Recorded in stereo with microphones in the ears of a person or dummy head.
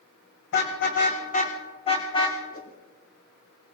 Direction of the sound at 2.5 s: 45° left (ahead or behind).